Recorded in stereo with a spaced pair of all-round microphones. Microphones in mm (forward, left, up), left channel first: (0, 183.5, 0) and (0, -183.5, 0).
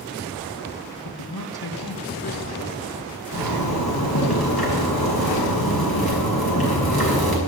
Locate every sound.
1.1 s a man speaking: 80° left, 1.5 m
3.3 s a zipper: 80° left, 6 m